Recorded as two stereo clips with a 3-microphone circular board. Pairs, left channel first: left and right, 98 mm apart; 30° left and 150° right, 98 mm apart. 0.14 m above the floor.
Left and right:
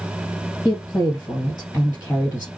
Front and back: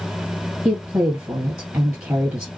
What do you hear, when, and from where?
0.7 s a woman speaking: 155° left, 1.8 m